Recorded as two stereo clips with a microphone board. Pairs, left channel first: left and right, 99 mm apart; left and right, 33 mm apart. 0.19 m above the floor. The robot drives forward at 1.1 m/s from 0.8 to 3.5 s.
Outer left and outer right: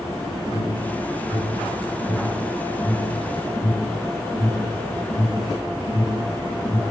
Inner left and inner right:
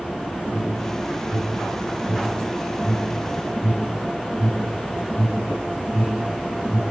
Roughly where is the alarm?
Left.